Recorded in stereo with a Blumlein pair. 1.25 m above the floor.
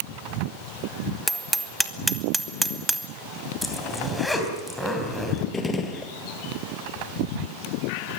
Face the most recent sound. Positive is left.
turn(degrees=15)